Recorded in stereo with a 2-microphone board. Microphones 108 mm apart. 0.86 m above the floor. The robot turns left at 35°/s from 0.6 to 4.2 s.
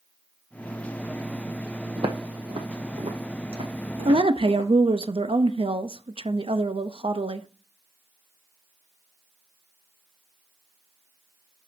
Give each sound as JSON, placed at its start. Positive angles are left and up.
{"t": 2.0, "sound": "footsteps", "side_deg": -55, "distance_m": 1.5}
{"t": 4.0, "sound": "a woman speaking", "side_deg": -60, "distance_m": 0.6}